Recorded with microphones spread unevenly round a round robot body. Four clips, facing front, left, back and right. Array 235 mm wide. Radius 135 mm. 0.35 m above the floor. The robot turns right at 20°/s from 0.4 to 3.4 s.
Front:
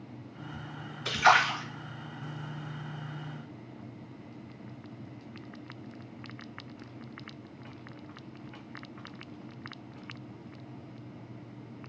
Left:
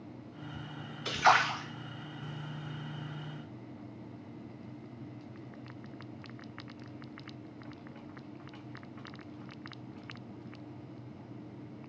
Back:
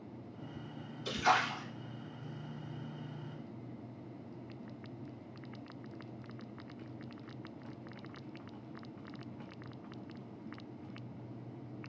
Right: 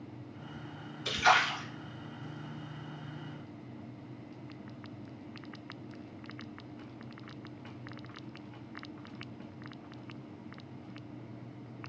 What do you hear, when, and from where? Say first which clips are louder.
1.1 s a splash: left 1 dB, front 7 dB; 20° left, 1.9 m; by 1.6 s 35° left, 1.9 m